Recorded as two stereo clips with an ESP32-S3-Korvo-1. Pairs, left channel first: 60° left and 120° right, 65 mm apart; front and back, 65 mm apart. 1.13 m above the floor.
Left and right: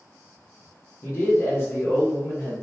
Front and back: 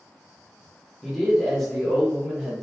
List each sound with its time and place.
1.0 s a man speaking: 80° left, 0.8 m